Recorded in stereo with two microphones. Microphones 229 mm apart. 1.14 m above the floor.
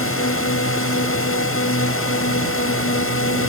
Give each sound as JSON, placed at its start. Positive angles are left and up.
{"t": 0.0, "sound": "a drone", "side_deg": 70}